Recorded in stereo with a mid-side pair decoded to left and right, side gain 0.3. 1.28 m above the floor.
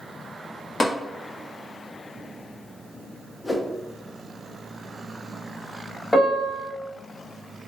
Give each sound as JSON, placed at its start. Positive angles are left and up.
{"t": 0.8, "sound": "tapping", "azimuth_deg": 45, "distance_m": 0.9}
{"t": 3.4, "sound": "a whoosh", "azimuth_deg": 30, "distance_m": 0.5}
{"t": 6.1, "sound": "a piano", "azimuth_deg": 20, "distance_m": 1.3}